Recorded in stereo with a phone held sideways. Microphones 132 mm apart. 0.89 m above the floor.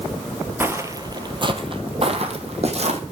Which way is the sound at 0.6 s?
15° right (ahead or behind).